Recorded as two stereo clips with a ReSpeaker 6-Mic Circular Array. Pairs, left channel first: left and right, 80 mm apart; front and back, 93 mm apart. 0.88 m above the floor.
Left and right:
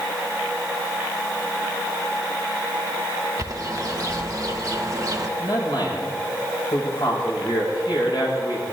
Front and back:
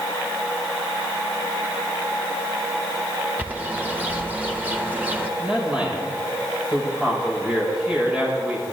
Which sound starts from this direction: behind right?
A bird, at 3.4 s.